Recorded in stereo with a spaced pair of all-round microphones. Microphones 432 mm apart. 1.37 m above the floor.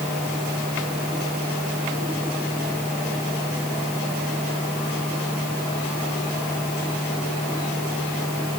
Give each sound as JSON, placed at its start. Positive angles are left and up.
{"t": 0.0, "sound": "a fan", "side_deg": -5}